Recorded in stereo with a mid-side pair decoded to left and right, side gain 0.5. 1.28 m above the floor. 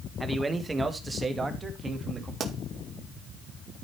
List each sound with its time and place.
0.2 s a man speaking: 15° right, 1.5 m; by 2.3 s 25° right, 2.5 m
2.4 s a pop: 45° right, 2 m